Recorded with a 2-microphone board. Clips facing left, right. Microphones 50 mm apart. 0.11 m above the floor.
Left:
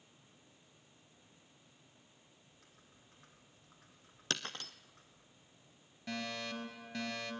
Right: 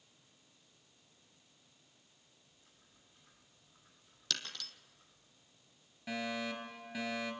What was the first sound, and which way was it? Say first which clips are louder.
Typing on a keyboard: left 4 dB; 70° left (ahead or behind).